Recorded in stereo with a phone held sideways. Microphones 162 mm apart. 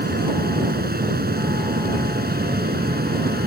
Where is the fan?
75° right (ahead or behind).